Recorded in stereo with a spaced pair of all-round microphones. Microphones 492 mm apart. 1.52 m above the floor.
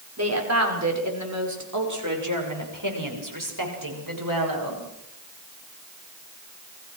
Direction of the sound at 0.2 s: 30° right (ahead or behind).